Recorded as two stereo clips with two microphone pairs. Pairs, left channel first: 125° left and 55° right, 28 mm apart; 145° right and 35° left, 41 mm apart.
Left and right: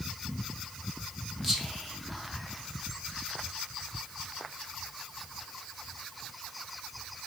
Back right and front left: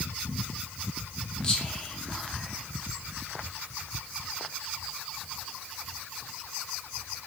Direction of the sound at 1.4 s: 145° right.